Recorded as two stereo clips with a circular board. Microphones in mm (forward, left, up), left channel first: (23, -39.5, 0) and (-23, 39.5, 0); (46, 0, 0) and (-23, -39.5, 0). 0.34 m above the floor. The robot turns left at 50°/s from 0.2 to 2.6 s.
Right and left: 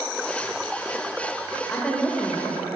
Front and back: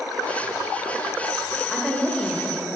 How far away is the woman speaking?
About 0.9 m.